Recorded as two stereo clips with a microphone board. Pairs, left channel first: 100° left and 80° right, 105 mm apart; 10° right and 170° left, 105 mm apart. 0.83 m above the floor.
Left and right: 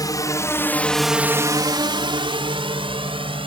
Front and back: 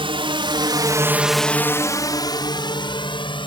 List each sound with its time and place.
0.0 s a drone: 150° left; by 3.5 s 50° right